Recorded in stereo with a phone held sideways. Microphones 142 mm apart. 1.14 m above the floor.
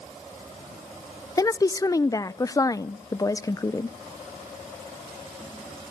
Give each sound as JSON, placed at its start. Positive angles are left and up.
{"t": 1.4, "sound": "a woman speaking", "side_deg": 25, "distance_m": 0.6}